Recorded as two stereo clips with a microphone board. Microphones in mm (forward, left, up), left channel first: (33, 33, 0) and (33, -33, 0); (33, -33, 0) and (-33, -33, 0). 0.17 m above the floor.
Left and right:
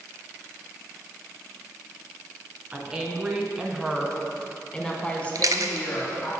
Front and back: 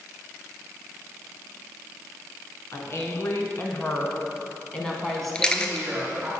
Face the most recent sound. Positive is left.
turn(degrees=-75)